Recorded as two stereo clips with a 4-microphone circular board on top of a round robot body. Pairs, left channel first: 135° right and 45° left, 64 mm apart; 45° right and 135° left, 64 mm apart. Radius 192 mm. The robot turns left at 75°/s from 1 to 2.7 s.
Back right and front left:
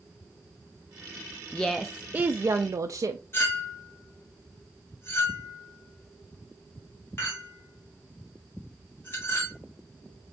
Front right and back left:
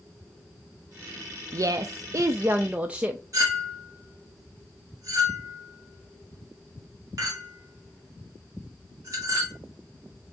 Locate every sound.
1.5 s a woman speaking: 155° left, 0.5 m; by 3.2 s 65° left, 0.5 m
3.3 s a clink: 170° left, 1.2 m